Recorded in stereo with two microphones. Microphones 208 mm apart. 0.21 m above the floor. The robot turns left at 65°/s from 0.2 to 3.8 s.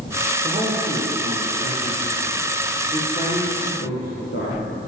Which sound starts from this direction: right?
A man speaking, at 0.4 s.